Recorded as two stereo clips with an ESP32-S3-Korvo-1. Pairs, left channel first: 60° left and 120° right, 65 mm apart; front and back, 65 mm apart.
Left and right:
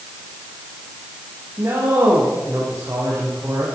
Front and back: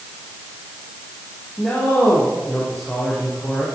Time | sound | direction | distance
1.6 | a man speaking | 70° right | 5 m